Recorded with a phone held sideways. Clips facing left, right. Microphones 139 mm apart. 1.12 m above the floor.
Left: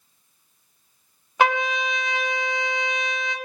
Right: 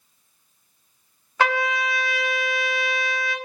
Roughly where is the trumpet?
Centre.